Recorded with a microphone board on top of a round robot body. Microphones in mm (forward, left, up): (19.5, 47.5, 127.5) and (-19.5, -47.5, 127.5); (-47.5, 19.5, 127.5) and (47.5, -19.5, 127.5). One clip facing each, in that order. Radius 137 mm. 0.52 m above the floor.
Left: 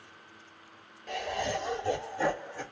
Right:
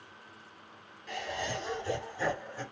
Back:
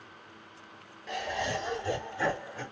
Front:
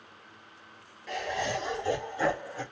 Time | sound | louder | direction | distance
1.1 | laughter | left 4 dB, front 1 dB | 70° left | 1.7 m